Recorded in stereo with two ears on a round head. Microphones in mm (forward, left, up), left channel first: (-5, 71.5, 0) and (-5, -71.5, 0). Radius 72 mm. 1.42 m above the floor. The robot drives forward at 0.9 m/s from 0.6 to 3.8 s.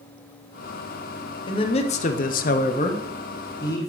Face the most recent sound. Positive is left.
turn(degrees=20)  # may be behind; listen again after turning